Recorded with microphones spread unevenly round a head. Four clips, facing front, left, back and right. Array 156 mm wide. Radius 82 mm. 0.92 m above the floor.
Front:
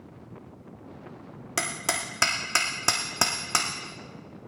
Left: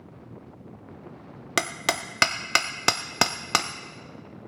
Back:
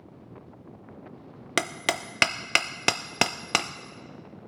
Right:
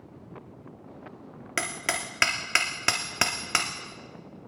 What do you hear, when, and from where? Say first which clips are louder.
1.6 s hammering: left 4 dB, back 3 dB; 155° left, 0.5 m